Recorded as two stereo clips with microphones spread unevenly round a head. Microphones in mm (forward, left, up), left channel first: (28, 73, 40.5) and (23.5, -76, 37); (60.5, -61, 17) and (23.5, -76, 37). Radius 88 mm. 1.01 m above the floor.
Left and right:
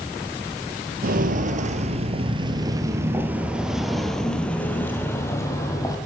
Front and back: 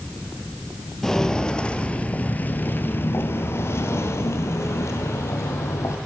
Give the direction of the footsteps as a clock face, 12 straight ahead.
2 o'clock.